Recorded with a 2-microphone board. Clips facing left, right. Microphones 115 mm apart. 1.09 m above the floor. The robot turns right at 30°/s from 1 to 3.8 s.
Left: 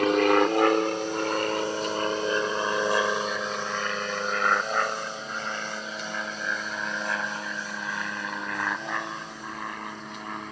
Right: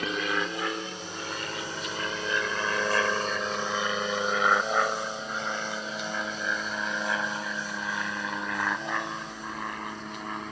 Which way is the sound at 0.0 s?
60° left (ahead or behind).